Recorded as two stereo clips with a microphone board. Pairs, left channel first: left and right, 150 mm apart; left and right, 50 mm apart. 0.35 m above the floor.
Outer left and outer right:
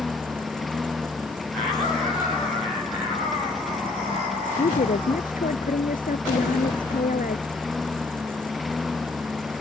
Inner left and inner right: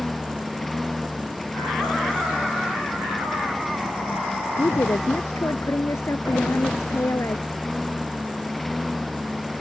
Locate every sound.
0.0 s a lawn mower: centre (ahead or behind)
4.6 s a woman speaking: 80° left